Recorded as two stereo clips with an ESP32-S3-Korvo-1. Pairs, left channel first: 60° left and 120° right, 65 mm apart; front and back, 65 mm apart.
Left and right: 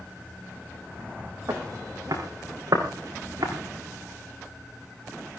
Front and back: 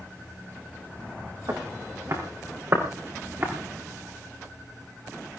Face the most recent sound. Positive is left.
turn(degrees=-125)